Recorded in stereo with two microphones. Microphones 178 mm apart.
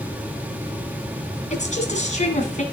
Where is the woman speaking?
45° left (ahead or behind), 1.9 m.